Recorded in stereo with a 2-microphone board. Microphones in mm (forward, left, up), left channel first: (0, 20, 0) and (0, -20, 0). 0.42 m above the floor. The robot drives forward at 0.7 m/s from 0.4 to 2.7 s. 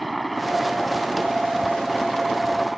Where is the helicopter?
Centre (ahead or behind).